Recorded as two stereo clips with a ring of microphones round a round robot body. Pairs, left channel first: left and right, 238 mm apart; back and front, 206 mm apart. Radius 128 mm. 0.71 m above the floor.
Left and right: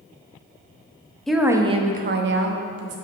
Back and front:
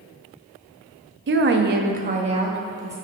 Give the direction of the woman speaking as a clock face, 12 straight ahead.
12 o'clock.